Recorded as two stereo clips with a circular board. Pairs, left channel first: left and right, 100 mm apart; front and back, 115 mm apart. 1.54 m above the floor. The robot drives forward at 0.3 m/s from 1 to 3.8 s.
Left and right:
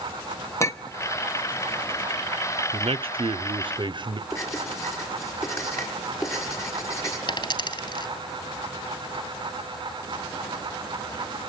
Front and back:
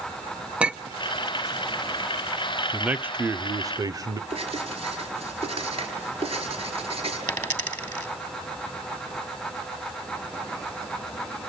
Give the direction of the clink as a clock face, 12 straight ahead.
8 o'clock.